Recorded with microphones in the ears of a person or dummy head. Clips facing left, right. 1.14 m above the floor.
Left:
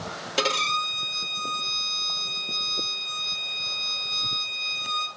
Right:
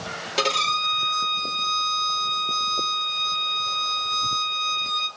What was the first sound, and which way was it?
A violin, centre (ahead or behind).